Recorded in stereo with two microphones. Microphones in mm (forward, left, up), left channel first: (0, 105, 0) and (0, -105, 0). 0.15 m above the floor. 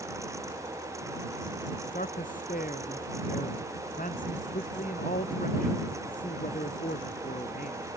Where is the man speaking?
40° left (ahead or behind).